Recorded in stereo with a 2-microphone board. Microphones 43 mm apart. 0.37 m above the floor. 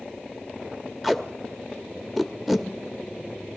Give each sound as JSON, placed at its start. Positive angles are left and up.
{"t": 1.0, "sound": "tape being pulled", "side_deg": -5, "distance_m": 0.9}